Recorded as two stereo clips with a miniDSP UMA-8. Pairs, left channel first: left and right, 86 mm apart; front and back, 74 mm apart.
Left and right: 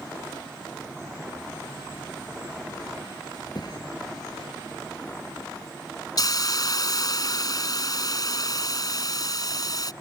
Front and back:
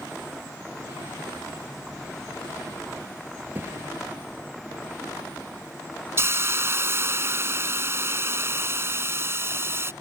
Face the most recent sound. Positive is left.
turn(degrees=125)